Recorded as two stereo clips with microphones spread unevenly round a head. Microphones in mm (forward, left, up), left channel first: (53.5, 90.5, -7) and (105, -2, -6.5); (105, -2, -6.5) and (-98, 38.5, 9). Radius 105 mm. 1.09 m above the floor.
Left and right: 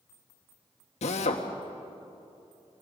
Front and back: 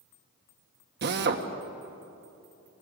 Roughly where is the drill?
Behind left.